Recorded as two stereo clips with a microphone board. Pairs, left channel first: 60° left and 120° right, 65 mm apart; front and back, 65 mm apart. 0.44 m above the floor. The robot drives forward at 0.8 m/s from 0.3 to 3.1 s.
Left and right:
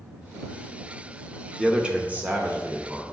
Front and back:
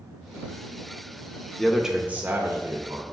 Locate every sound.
1.6 s a man speaking: 55° right, 0.7 m; by 3.0 s 170° right, 1.2 m